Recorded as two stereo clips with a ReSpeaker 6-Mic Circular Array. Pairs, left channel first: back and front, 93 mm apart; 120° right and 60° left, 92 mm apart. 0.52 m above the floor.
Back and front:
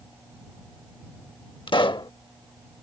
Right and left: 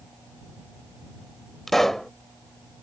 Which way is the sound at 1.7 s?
155° left.